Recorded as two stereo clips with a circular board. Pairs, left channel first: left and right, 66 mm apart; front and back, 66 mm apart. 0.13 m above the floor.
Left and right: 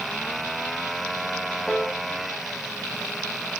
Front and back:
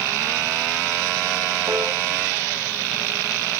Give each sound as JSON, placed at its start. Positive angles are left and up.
{"t": 1.7, "sound": "a piano", "azimuth_deg": 175, "distance_m": 3.5}